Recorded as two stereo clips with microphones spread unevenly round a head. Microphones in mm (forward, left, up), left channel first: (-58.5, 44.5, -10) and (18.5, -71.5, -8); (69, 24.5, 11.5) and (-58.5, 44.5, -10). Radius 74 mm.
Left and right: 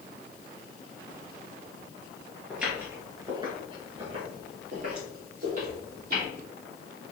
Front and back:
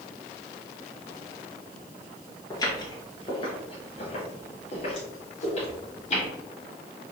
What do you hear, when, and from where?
2.5 s footsteps: 25° left, 1.7 m; by 6.3 s 45° right, 3.5 m